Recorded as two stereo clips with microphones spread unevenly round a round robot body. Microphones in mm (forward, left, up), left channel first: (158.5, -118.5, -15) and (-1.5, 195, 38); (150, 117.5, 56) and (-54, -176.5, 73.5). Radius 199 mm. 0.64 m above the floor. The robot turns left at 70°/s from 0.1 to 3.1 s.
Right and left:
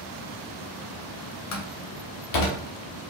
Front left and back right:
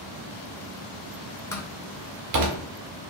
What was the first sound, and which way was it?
A door slam, 25° right.